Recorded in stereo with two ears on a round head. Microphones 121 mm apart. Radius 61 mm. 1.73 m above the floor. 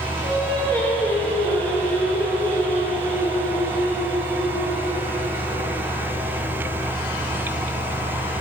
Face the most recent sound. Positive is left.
turn(degrees=15)  # may be behind; listen again after turning